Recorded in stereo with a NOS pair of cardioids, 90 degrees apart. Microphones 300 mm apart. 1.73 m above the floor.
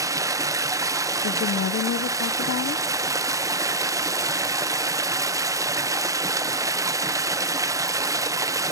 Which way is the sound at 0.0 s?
10° right.